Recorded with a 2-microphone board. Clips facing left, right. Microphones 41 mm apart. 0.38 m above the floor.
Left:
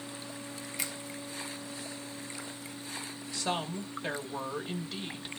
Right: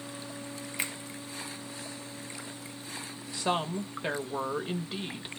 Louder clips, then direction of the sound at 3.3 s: Right 4 dB; 20° right (ahead or behind).